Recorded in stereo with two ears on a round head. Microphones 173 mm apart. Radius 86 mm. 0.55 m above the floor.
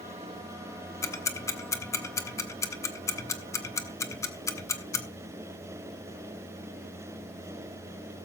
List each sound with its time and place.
1.0 s ticking: 15° left (ahead or behind), 1.2 m